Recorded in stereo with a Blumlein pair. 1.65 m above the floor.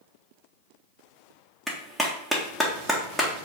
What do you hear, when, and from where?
1.7 s a clap: 5° left, 1.5 m